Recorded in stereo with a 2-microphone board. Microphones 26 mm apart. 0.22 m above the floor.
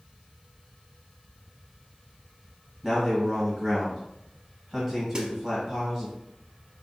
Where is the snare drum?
35° right (ahead or behind), 0.7 m.